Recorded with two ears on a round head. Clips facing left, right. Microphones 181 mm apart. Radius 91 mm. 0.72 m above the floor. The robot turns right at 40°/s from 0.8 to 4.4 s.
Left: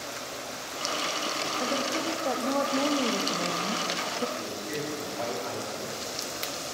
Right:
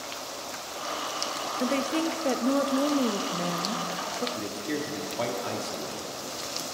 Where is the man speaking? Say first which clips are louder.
Right 2 dB; 60° right (ahead or behind), 1.6 m.